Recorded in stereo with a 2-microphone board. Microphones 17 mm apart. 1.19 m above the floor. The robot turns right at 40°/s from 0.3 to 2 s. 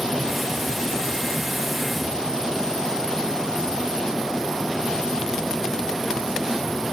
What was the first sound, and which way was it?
Only background noise.